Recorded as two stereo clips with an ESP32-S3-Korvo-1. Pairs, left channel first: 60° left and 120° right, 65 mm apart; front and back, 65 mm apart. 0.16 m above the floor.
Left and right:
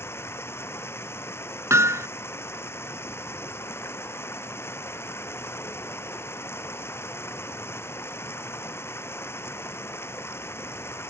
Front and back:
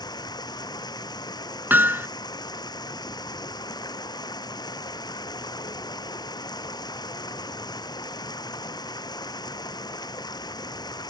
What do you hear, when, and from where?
0.0 s running water: 5° left
1.7 s hammering: 130° right